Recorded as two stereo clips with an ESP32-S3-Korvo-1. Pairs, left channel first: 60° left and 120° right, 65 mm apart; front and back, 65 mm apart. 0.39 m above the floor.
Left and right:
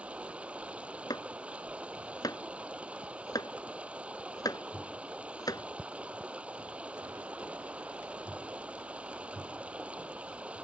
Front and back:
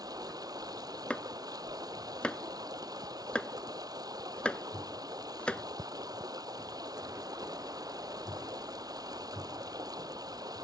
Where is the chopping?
75° left.